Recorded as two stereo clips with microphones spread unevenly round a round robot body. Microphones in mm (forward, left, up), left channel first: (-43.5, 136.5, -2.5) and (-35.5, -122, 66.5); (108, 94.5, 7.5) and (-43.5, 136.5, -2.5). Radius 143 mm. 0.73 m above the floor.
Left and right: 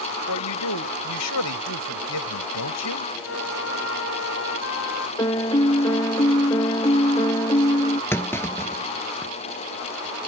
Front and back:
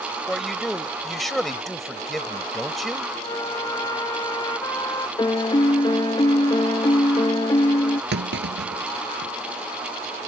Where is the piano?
40° left.